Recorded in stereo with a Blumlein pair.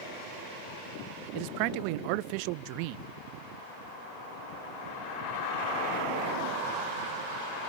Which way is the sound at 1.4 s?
45° right.